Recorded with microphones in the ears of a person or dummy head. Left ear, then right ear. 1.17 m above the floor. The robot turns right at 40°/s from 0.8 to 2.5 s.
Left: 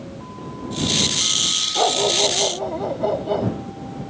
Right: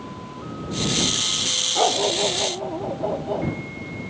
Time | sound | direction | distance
1.8 | a dog barking | 10° right | ?